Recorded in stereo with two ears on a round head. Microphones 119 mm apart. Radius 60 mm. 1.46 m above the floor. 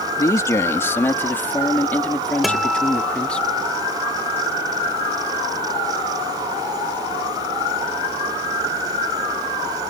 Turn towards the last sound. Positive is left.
turn(degrees=0)  # may be behind; listen again after turning